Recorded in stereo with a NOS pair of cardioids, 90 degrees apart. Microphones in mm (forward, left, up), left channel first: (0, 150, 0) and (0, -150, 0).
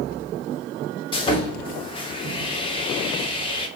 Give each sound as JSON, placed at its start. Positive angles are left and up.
{"t": 1.1, "sound": "sawing", "azimuth_deg": 15, "distance_m": 3.5}